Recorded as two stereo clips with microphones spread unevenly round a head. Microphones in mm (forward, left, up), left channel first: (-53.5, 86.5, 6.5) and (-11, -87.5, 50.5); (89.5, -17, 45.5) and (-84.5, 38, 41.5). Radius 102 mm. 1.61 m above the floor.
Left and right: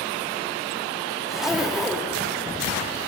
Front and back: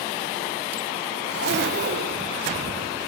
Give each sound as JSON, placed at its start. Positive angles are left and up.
{"t": 1.3, "sound": "a zipper", "azimuth_deg": -160, "distance_m": 2.5}